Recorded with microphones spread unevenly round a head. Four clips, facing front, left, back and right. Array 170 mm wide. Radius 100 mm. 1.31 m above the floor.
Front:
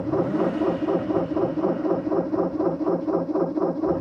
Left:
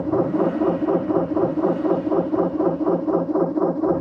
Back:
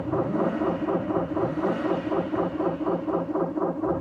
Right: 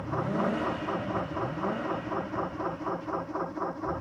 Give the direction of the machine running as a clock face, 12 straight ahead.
10 o'clock.